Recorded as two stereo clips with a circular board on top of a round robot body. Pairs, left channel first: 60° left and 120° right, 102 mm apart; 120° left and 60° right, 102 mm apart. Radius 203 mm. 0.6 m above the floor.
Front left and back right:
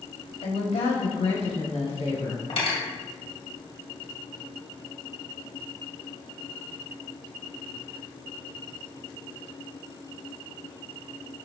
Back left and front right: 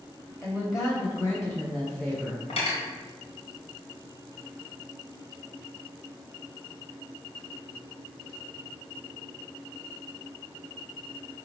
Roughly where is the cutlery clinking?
Left.